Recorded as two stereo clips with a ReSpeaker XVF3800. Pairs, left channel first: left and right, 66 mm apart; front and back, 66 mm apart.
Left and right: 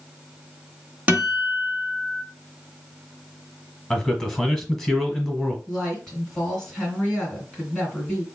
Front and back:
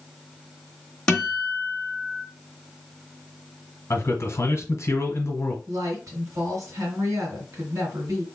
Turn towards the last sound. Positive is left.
turn(degrees=170)